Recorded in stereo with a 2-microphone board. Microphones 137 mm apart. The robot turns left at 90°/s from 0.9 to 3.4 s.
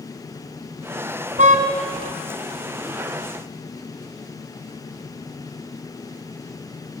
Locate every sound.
1.4 s a car horn: 60° right (ahead or behind), 2.5 m; by 1.6 s 80° right, 2.5 m